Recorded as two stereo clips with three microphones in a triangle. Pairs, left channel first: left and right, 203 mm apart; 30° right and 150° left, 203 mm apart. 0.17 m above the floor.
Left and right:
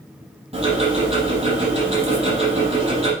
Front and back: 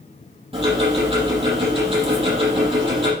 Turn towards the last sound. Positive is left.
turn(degrees=-150)